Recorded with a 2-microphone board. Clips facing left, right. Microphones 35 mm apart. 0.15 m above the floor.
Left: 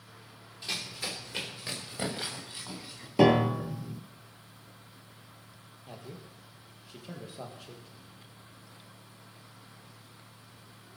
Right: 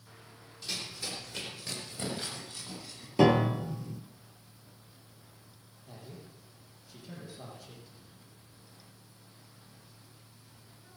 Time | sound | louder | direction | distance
0.6 | running footsteps | left 3 dB | 40° left (ahead or behind) | 5 m
3.2 | a piano | left 1 dB | 10° left (ahead or behind) | 1.1 m
5.9 | a man speaking | left 3 dB | 50° left (ahead or behind) | 4 m